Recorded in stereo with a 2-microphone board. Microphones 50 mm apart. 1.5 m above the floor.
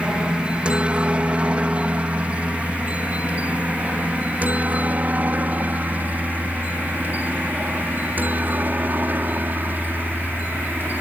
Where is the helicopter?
20° right (ahead or behind); by 11.0 s 40° right (ahead or behind).